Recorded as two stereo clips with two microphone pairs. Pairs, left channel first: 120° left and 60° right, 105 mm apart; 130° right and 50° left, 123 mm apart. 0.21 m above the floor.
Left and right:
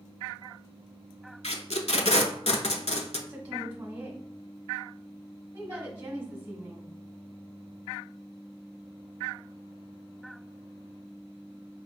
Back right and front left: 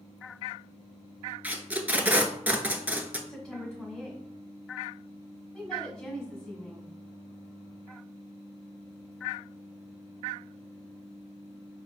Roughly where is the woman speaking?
Ahead right.